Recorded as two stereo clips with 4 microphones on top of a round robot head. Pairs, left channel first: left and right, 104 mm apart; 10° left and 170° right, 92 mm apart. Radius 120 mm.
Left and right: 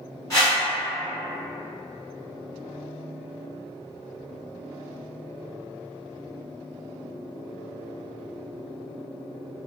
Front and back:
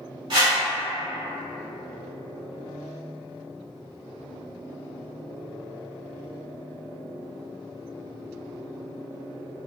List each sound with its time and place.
0.3 s a whoosh: 155° left, 1.2 m